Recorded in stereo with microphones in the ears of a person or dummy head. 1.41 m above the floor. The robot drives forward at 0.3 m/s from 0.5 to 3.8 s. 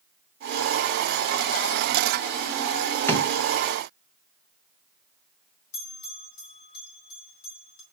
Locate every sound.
3.1 s a drawer: 10° left (ahead or behind), 1.3 m
5.7 s a bell: 65° left (ahead or behind), 2.5 m